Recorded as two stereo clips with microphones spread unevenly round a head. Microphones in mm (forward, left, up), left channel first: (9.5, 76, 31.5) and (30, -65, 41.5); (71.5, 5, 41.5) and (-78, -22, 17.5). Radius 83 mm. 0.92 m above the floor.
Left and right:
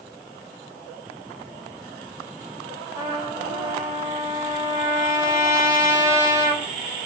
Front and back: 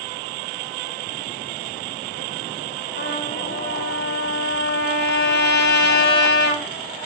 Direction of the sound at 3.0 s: 15° right.